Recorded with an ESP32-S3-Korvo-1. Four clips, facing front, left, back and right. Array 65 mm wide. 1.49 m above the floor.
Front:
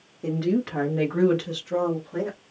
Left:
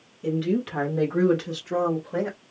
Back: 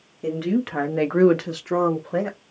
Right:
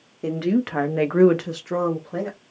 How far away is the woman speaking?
About 1.2 m.